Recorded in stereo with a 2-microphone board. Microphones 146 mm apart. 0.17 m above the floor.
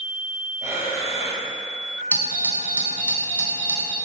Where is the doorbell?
15° left (ahead or behind), 1.5 m.